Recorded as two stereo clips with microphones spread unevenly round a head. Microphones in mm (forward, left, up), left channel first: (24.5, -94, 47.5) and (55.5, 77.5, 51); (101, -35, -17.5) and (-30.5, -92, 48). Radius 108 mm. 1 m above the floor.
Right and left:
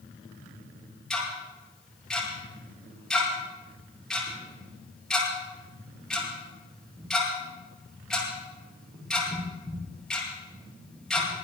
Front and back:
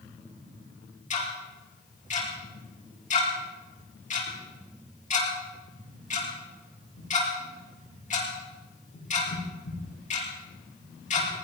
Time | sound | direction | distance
1.1 | ticking | 15° right | 9 m